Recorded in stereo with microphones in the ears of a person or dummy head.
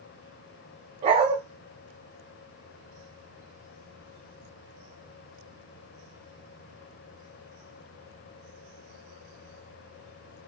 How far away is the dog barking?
About 0.9 m.